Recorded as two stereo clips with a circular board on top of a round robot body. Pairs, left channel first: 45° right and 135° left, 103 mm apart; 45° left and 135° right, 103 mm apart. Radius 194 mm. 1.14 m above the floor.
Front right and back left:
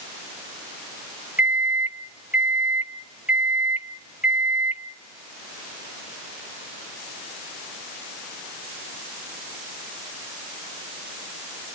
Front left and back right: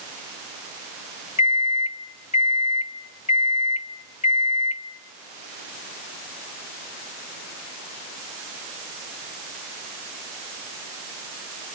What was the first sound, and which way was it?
A microwave, 60° left.